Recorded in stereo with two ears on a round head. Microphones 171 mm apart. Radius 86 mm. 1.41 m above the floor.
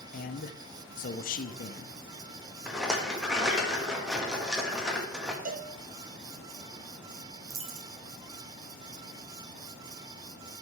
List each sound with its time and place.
0.1 s a man speaking: 45° left (ahead or behind), 0.8 m
2.7 s a rattle: 5° right (ahead or behind), 1.5 m
5.5 s a cowbell: 40° right (ahead or behind), 0.9 m
7.5 s a dropped coin: 30° right (ahead or behind), 0.9 m